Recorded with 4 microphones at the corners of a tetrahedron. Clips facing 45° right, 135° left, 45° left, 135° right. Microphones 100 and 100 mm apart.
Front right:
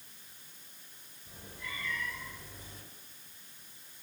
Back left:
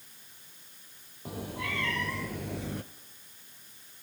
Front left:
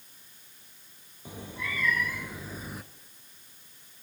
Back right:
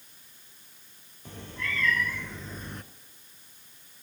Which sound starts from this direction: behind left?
A cat meowing, at 1.2 s.